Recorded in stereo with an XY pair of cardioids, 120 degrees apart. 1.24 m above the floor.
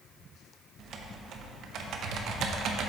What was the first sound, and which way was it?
Typing on a keyboard, 60° right.